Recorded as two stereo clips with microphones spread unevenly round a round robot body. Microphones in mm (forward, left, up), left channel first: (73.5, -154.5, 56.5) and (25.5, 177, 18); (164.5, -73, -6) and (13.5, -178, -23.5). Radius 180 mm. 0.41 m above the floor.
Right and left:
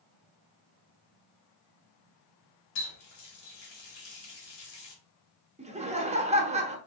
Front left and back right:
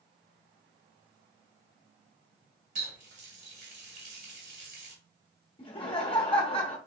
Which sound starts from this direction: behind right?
A running tap, at 2.8 s.